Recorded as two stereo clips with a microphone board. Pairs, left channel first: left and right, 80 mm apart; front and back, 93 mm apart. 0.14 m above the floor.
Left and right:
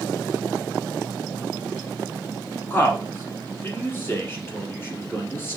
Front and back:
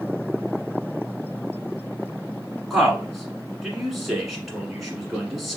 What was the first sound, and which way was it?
A man speaking, 95° left.